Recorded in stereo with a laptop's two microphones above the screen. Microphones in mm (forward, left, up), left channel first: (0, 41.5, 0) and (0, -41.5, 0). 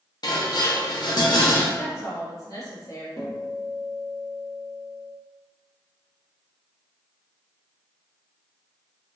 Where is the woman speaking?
45° left (ahead or behind), 1.0 m.